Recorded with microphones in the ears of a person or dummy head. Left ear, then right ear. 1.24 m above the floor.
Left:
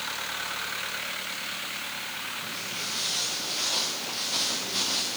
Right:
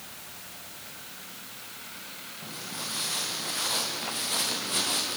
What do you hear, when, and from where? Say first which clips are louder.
2.4 s footsteps: left 4 dB; 75° right (ahead or behind), 5.5 m; by 5.2 s 65° right (ahead or behind), 5 m